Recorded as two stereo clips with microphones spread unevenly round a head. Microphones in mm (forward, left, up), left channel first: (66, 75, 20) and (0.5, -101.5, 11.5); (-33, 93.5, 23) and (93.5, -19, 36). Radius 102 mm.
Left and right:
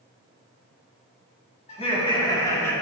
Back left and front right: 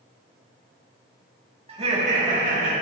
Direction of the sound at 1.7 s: 15° left.